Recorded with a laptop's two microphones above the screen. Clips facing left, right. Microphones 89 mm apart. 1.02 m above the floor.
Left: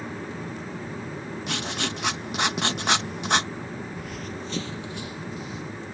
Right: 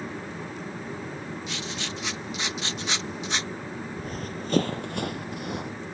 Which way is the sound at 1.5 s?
60° left (ahead or behind).